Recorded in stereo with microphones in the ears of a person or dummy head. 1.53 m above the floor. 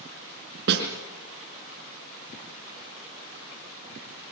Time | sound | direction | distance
0.7 | a snare drum | 60° right (ahead or behind) | 4.5 m